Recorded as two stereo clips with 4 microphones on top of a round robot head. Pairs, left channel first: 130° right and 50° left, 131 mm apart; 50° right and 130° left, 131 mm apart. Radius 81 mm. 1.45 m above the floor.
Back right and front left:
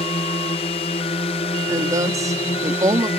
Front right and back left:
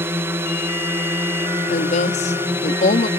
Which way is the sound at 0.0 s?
160° right.